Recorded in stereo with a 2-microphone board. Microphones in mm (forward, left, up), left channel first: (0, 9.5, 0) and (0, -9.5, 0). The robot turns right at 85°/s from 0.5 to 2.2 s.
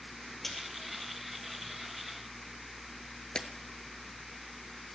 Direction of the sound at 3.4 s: 40° left (ahead or behind).